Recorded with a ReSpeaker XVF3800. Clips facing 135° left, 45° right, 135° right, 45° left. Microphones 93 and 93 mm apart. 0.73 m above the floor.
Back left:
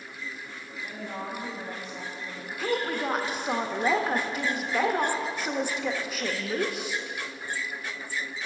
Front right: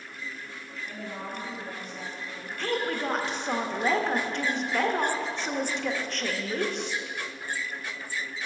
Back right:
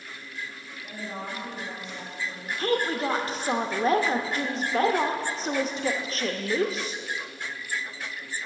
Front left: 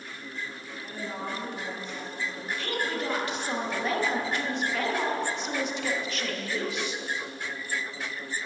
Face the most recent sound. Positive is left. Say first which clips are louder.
# back left 1 dB, back right 6 dB
turn(degrees=-145)